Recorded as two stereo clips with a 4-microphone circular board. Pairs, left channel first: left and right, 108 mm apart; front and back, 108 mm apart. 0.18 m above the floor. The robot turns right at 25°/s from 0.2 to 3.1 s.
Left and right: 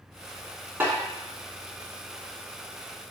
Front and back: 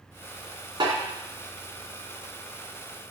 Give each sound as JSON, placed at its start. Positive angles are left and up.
{"t": 0.8, "sound": "a snare drum", "azimuth_deg": -155, "distance_m": 2.5}